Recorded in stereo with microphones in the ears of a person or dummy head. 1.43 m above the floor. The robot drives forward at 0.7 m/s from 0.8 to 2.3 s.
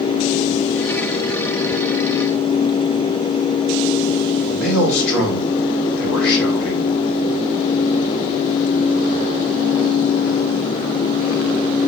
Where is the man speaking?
70° left (ahead or behind), 3 m.